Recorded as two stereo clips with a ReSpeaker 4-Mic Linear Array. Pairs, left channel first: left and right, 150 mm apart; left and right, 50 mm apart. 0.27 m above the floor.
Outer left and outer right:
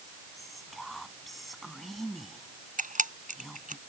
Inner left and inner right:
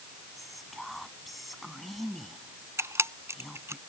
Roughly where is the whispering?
Centre.